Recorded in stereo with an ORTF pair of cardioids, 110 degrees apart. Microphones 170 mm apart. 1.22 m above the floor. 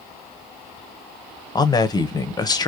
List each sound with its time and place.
1.6 s a man speaking: 25° left, 0.6 m